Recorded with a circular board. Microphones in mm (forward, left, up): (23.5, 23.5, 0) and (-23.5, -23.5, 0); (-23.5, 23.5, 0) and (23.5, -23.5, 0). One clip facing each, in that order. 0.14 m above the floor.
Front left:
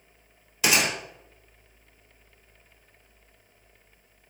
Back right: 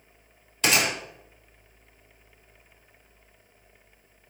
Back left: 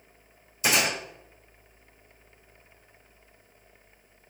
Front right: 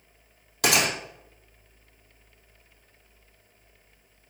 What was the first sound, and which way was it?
A gunshot, 40° right.